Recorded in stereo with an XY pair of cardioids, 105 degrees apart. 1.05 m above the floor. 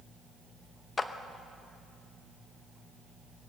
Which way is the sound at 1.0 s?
30° left.